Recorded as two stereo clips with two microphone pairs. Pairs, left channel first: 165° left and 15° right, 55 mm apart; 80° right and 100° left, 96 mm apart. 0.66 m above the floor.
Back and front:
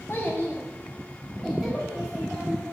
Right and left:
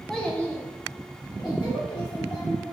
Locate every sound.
0.1 s a child speaking: 170° right, 0.8 m; by 2.7 s 90° right, 1.5 m